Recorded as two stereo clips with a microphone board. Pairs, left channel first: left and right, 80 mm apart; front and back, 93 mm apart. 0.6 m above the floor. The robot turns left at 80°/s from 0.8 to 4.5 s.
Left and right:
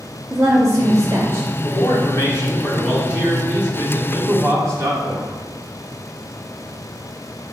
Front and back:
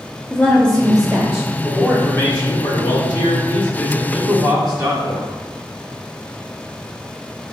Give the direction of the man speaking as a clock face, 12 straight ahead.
9 o'clock.